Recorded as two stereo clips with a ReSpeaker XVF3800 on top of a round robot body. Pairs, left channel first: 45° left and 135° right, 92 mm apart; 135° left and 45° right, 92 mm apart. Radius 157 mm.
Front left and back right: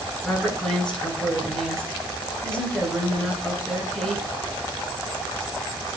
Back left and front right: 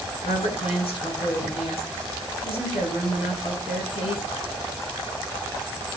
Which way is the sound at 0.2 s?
130° left.